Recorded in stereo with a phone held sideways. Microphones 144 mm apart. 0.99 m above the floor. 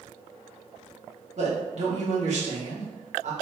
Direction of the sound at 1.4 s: 55° right (ahead or behind).